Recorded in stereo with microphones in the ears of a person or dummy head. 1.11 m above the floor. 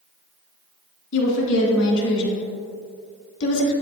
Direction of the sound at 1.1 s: 65° left (ahead or behind).